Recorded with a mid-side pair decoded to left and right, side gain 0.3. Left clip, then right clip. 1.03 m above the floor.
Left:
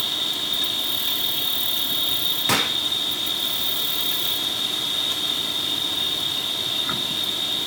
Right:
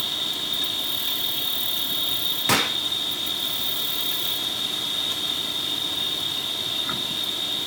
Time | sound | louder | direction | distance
0.0 | an insect | left 2 dB | 25° left | ?
2.5 | a gunshot | right 1 dB | 10° right | ?